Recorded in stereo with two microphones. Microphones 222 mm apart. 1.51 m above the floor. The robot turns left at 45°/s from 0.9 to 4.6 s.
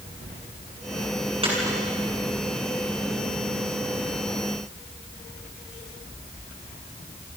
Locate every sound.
1.4 s a dropped coin: 25° right (ahead or behind), 6.5 m; by 1.8 s 10° right (ahead or behind), 6.5 m